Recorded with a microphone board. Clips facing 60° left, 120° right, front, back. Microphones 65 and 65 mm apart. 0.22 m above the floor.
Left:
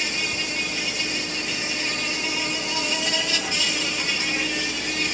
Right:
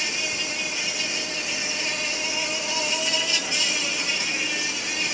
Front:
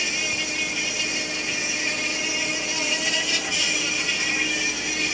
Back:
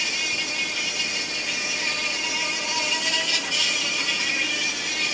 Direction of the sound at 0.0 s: 75° left.